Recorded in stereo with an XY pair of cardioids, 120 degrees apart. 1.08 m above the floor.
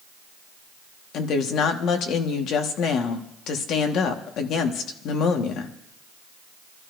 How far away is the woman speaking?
About 1.5 m.